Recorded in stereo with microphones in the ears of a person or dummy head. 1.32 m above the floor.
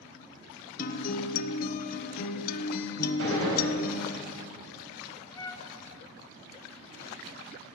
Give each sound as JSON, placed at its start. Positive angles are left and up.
{"t": 0.8, "sound": "a guitar", "side_deg": 45, "distance_m": 0.7}
{"t": 3.2, "sound": "a gunshot", "side_deg": -75, "distance_m": 4.0}
{"t": 5.3, "sound": "a flute", "side_deg": 20, "distance_m": 0.6}